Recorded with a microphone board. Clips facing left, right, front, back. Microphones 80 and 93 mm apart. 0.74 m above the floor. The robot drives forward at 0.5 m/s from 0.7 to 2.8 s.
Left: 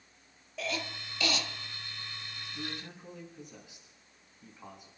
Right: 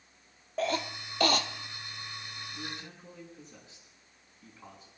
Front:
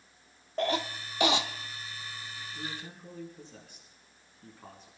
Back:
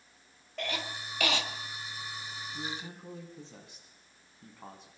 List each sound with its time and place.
0.6 s a cough: 50° right, 1.4 m; by 1.5 s 70° right, 1.2 m
2.5 s a man speaking: 160° left, 5 m